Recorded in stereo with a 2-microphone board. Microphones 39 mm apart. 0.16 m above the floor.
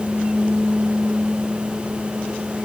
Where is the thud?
I don't hear a thud.